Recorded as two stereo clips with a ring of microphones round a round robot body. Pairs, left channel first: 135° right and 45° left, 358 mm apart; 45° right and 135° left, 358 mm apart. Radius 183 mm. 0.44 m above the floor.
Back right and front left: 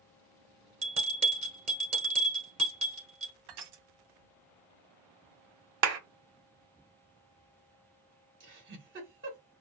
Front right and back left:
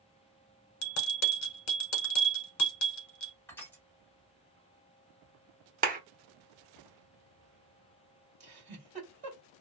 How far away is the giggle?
About 1.4 m.